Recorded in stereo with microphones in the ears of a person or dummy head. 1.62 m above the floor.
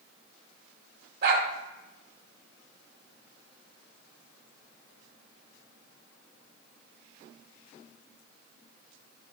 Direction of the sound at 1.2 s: 65° right (ahead or behind).